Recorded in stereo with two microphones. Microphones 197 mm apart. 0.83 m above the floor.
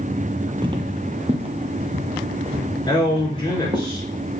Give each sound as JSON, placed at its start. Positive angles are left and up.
{"t": 0.6, "sound": "footsteps", "side_deg": -25, "distance_m": 0.9}
{"t": 2.9, "sound": "a man speaking", "side_deg": 20, "distance_m": 3.0}